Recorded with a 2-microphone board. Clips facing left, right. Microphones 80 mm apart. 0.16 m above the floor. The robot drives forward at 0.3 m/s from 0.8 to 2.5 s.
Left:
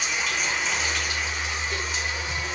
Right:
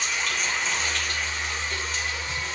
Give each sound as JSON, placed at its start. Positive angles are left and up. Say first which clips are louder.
{"t": 0.0, "sound": "running water", "louder": "left 1 dB", "side_deg": 5, "distance_m": 3.0}